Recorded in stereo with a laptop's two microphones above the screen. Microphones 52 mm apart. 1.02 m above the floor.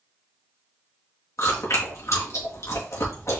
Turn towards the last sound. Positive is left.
turn(degrees=65)  # may be behind; listen again after turning